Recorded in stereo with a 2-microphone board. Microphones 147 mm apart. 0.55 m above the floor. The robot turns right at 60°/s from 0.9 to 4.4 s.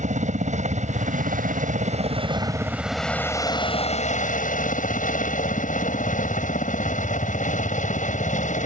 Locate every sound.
0.0 s a helicopter: 55° right (ahead or behind); by 8.7 s 60° left (ahead or behind)